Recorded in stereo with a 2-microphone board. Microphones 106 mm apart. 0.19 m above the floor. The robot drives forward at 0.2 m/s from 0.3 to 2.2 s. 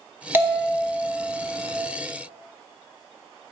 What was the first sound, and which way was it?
A bell, 20° right (ahead or behind).